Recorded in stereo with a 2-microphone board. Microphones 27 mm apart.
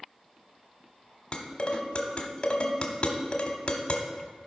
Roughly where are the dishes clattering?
Left.